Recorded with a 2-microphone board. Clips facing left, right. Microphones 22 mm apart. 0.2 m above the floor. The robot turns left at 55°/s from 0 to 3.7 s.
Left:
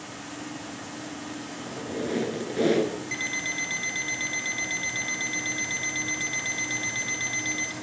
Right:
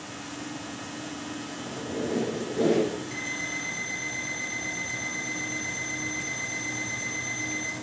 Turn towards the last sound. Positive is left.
turn(degrees=65)